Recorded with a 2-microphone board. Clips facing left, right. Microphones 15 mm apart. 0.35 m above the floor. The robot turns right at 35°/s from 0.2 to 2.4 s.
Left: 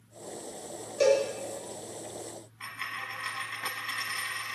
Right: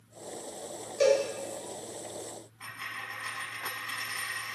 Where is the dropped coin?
35° left (ahead or behind), 0.8 m.